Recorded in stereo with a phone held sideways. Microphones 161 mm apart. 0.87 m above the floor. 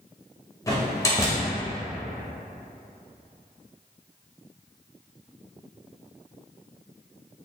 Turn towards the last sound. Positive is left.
turn(degrees=20)  # may be behind; listen again after turning